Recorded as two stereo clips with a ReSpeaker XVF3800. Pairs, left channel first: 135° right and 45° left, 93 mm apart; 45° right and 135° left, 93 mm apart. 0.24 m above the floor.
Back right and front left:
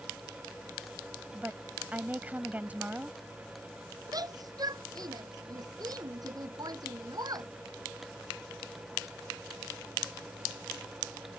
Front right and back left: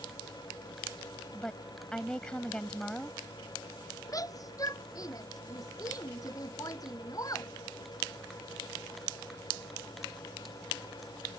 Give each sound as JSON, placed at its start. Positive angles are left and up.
{"t": 1.3, "sound": "a woman speaking", "azimuth_deg": 15}
{"t": 4.1, "sound": "a shout", "azimuth_deg": 5}